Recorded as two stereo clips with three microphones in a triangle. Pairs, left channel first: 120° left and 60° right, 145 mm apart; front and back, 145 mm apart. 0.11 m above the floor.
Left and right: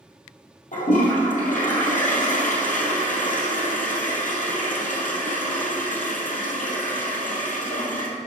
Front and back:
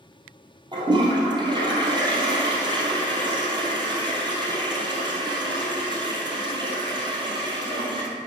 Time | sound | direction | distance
0.7 | a toilet flushing | 125° left | 1.9 m